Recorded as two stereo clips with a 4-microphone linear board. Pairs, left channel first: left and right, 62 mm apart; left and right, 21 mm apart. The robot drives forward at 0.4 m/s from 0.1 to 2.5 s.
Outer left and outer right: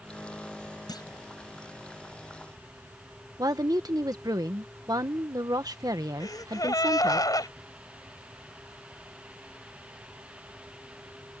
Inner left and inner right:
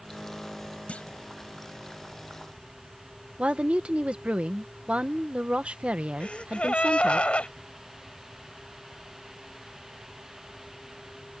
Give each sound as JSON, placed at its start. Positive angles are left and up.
{"t": 0.9, "sound": "a clunk", "side_deg": 80}
{"t": 3.4, "sound": "a woman speaking", "side_deg": -65}
{"t": 6.2, "sound": "a gasp", "side_deg": 70}